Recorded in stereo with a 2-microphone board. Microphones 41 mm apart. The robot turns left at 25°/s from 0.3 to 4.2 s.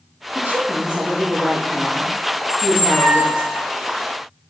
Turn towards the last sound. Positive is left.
turn(degrees=85)